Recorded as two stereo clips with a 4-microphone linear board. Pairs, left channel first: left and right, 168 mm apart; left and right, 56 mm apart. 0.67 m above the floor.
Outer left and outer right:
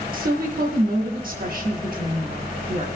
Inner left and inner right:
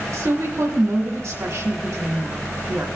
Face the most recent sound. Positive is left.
turn(degrees=-55)  # may be behind; listen again after turning